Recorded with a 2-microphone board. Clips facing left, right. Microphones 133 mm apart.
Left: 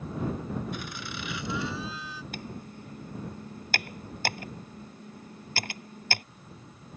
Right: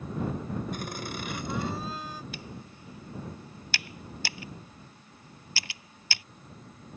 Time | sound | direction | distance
0.7 | laughter | 45° right (ahead or behind) | ?
2.3 | typing on a keyboard | 50° left (ahead or behind) | ?